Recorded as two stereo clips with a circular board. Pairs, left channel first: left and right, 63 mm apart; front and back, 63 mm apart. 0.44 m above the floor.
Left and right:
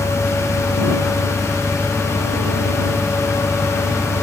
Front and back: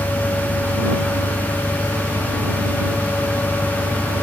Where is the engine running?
70° left.